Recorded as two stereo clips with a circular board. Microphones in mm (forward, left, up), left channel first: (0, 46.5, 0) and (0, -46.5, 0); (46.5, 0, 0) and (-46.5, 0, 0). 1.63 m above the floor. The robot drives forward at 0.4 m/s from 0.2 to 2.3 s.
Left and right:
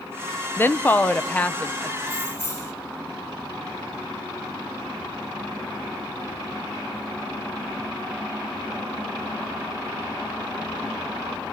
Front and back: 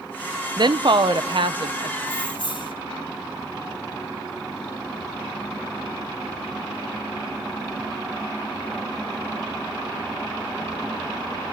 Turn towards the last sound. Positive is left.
turn(degrees=35)